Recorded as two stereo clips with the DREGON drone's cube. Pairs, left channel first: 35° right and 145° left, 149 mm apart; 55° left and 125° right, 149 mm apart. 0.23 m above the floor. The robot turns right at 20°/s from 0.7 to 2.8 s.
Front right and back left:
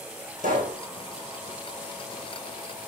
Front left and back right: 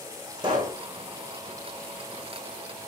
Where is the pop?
175° left, 4 m; by 0.8 s straight behind, 4 m.